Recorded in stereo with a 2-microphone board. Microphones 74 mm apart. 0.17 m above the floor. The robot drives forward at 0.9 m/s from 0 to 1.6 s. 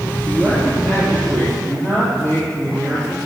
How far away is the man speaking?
About 4 m.